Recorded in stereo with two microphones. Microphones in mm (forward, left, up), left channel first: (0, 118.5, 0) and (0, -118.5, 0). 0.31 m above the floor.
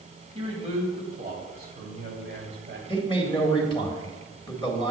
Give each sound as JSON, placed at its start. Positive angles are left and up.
{"t": 0.3, "sound": "a man speaking", "side_deg": -25, "distance_m": 2.0}
{"t": 2.9, "sound": "a man speaking", "side_deg": 20, "distance_m": 1.6}